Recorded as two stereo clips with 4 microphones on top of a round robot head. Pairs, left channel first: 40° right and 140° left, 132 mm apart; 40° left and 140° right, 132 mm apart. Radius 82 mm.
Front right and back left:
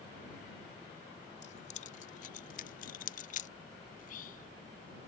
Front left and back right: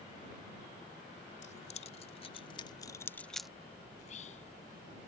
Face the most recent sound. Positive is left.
turn(degrees=-5)